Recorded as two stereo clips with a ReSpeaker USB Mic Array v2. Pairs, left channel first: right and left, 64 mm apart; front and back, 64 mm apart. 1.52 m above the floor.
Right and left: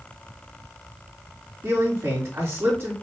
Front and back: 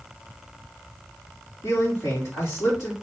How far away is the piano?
No piano in this recording.